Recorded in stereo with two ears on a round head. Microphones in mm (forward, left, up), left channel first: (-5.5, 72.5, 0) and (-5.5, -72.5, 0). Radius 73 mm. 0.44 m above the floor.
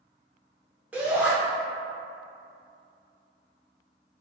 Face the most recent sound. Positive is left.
turn(degrees=-10)  # may be behind; listen again after turning